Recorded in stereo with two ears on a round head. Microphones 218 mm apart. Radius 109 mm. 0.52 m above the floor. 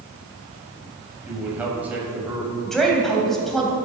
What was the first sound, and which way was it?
A man speaking, 5° right (ahead or behind).